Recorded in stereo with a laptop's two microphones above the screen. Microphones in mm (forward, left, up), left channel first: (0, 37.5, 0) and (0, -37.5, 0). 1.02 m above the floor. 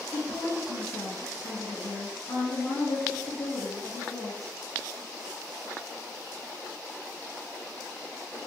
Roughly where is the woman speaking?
Left.